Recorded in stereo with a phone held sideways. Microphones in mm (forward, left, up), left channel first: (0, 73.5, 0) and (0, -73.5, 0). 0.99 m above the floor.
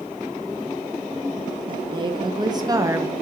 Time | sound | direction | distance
1.7 | a woman speaking | 35° right (ahead or behind) | 1.1 m